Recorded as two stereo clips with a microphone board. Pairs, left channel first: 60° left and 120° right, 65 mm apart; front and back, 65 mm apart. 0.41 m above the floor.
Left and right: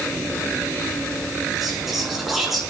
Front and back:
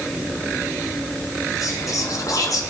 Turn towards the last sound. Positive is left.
turn(degrees=-35)